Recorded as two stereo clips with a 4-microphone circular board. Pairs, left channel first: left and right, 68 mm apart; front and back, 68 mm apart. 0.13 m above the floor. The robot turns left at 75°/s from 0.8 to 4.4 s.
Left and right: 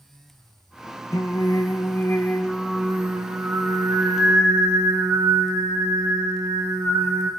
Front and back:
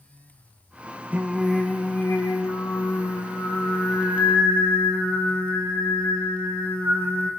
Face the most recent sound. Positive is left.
turn(degrees=-130)